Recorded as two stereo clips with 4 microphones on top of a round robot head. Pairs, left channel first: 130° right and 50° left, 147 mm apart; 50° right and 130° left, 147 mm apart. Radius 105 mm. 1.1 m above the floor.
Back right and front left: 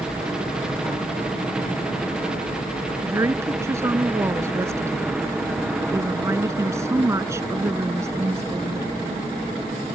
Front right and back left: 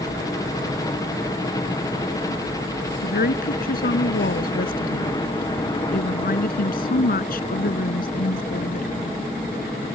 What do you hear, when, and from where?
0.0 s a helicopter: 30° right
3.0 s a woman speaking: 25° right